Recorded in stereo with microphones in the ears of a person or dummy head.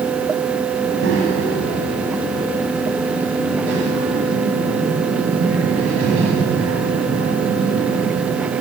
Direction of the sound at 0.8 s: 85° right.